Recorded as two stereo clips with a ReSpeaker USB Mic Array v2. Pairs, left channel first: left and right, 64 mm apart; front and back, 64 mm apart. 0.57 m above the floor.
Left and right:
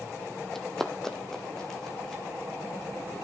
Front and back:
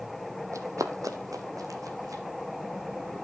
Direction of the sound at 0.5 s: 170° left.